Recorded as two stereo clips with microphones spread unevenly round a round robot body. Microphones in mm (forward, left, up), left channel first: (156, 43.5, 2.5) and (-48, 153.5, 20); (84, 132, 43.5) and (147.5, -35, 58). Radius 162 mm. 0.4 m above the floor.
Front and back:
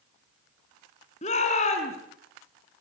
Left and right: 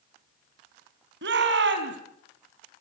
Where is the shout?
95° right, 4 m.